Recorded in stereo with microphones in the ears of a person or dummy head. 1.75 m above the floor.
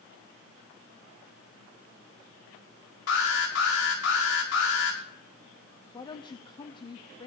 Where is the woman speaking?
25° left (ahead or behind), 0.9 m.